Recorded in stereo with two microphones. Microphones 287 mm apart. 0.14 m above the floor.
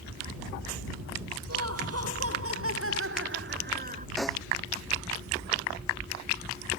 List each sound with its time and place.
1.5 s laughter: 60° right (ahead or behind); by 4.1 s 25° right (ahead or behind)
4.2 s a snare drum: centre (ahead or behind)